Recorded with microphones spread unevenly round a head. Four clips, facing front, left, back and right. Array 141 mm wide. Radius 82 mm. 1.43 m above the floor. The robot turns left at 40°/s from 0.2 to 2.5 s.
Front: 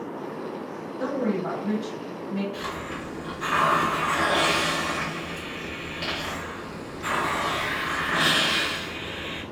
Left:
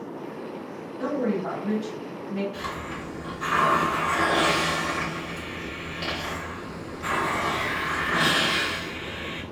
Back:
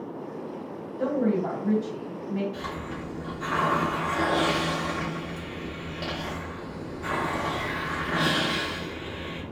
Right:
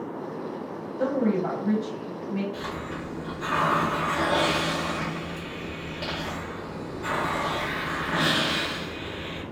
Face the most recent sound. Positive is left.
turn(degrees=-175)